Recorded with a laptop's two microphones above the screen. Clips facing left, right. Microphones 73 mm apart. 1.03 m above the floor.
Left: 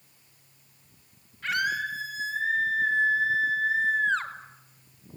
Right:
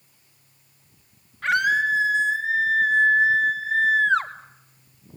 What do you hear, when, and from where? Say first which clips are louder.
1.4 s a scream: right 8 dB; 70° right (ahead or behind), 6.5 m; by 4.3 s 65° right (ahead or behind), 3 m